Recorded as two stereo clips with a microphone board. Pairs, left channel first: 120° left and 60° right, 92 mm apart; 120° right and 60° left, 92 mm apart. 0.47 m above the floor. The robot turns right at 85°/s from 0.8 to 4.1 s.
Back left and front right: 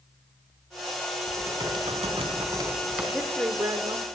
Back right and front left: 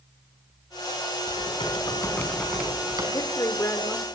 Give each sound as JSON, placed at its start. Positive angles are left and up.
{"t": 1.3, "sound": "typing on a keyboard", "azimuth_deg": -130, "distance_m": 4.5}
{"t": 3.1, "sound": "a woman speaking", "azimuth_deg": -130, "distance_m": 1.1}